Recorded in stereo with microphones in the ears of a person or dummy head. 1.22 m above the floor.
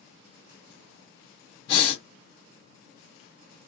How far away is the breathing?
About 1.3 m.